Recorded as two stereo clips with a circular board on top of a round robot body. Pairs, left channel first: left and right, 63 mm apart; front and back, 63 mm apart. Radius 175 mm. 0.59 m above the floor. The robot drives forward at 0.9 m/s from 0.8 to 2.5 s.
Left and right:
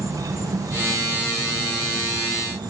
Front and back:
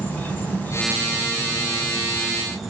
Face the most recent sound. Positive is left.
turn(degrees=-95)